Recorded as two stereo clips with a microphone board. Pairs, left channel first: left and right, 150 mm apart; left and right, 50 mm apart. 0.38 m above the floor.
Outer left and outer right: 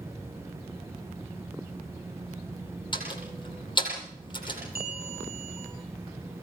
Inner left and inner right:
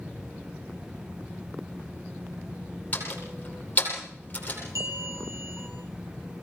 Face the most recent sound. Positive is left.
turn(degrees=-80)